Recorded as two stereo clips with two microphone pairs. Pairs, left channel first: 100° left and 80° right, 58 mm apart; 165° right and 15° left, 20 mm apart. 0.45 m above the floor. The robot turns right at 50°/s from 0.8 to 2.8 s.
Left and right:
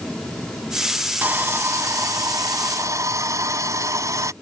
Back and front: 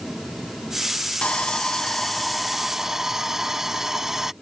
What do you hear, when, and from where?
1.2 s sawing: 140° right; by 4.3 s 60° right